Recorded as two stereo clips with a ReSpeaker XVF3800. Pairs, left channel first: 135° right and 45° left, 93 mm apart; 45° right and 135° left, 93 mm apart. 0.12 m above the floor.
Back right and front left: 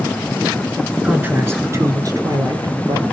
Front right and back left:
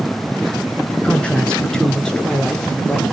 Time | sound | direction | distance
1.0 | a man speaking | 5° left | 1.7 m